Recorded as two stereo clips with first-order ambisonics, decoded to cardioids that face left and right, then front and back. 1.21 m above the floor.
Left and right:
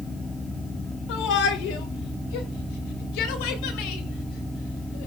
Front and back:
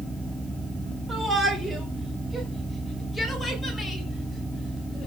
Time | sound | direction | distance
1.1 | a shout | 105° left | 4 m